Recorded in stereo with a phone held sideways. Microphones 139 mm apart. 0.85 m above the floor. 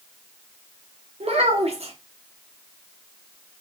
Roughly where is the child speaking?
Right.